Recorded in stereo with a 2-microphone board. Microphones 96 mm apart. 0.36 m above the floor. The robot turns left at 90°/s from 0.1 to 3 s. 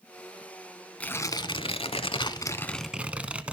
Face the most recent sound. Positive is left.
turn(degrees=-10)